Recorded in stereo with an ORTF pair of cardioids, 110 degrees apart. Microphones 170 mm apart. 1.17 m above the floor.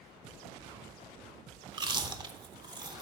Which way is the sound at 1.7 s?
25° right.